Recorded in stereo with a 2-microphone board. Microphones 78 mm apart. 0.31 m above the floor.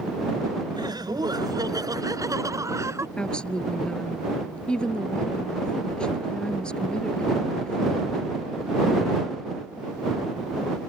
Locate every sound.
0.7 s laughter: 65° right (ahead or behind); by 3.1 s 40° right (ahead or behind)
3.2 s a woman speaking: 15° left (ahead or behind)